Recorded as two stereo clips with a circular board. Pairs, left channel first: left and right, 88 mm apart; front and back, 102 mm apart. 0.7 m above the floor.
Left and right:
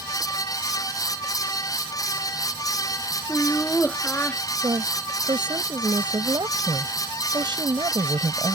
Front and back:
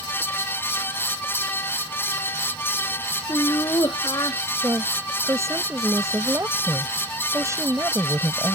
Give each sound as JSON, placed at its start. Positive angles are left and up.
{"t": 3.3, "sound": "laughter", "azimuth_deg": 30}
{"t": 4.6, "sound": "a woman speaking", "azimuth_deg": -120}